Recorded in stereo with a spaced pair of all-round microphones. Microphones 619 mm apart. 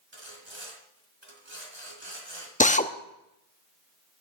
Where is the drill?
10° left (ahead or behind), 0.7 m.